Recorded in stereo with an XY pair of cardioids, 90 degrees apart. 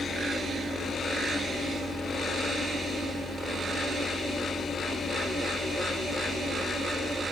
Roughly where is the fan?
Left.